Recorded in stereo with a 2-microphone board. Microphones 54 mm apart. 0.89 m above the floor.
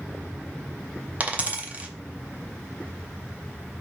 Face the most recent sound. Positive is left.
turn(degrees=-30)  # may be behind; listen again after turning